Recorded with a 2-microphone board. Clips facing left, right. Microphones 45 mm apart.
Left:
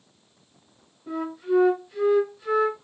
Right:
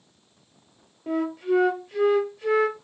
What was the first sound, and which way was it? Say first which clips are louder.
A flute: right 2 dB; 60° right (ahead or behind).